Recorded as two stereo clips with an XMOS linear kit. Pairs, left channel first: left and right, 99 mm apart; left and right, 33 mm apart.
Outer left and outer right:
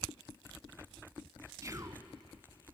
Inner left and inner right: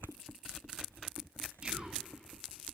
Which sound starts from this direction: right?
Whispering, at 1.6 s.